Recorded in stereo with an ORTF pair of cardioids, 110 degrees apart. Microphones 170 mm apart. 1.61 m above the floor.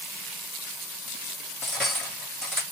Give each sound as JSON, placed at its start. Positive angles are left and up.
{"t": 1.6, "sound": "cutlery clinking", "azimuth_deg": 0, "distance_m": 2.5}